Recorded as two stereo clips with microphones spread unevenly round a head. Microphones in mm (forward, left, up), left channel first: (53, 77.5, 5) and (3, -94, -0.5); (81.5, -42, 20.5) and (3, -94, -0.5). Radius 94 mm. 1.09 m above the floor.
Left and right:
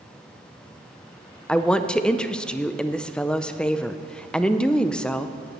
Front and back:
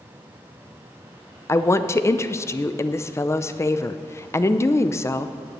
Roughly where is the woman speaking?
Ahead.